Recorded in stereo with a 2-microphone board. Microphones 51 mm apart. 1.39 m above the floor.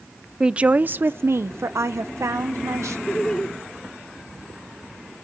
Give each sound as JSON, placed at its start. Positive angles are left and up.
{"t": 0.4, "sound": "a woman speaking", "side_deg": -15, "distance_m": 0.5}
{"t": 3.1, "sound": "laughter", "side_deg": 10, "distance_m": 0.8}